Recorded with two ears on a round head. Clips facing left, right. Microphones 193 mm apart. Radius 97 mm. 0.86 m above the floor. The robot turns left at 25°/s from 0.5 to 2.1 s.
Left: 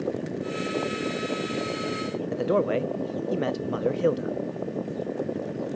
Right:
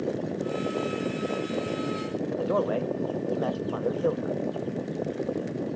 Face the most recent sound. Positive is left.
turn(degrees=30)  # may be behind; listen again after turning